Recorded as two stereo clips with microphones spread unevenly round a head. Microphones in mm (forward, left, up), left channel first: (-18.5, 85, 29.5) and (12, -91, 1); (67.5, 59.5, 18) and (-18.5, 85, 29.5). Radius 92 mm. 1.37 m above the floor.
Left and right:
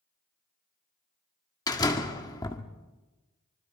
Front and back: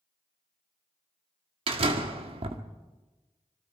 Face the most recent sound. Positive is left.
turn(degrees=165)